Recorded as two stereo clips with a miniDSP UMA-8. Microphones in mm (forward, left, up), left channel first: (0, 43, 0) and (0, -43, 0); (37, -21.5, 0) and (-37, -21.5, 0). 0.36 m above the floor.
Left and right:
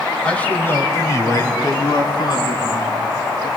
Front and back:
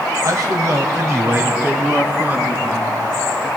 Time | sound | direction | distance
0.2 | a man speaking | 165° left | 2 m